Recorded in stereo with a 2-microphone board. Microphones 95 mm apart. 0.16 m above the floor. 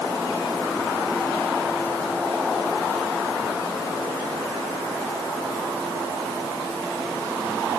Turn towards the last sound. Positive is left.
No sound to turn to.